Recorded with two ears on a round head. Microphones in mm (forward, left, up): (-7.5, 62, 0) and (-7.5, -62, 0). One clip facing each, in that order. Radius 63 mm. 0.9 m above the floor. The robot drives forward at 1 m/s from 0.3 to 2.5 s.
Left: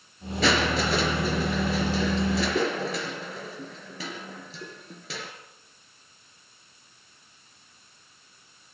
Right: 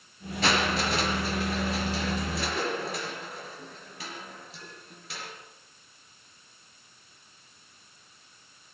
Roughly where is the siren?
No siren in this recording.